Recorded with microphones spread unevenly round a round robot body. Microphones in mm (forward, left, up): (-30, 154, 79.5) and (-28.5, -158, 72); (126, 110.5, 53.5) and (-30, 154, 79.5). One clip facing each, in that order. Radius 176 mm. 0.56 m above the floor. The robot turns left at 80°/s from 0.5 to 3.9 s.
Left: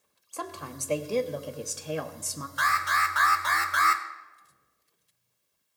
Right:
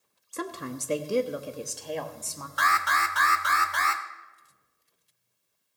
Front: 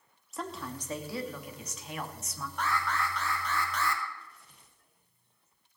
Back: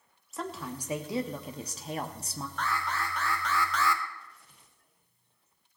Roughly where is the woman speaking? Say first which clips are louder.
Right 5 dB, back 1 dB; right.